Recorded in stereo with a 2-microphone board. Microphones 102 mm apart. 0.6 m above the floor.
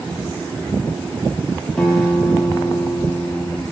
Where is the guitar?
5° left (ahead or behind), 0.9 m.